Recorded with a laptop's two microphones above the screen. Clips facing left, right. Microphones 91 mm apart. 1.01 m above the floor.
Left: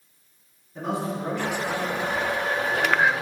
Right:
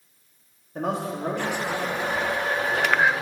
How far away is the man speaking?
About 2.5 m.